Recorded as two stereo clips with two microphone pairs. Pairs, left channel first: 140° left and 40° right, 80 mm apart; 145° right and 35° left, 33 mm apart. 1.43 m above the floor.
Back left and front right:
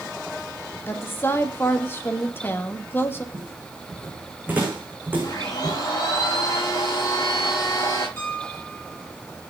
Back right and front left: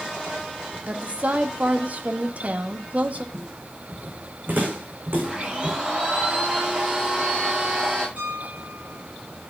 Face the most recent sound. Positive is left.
turn(degrees=70)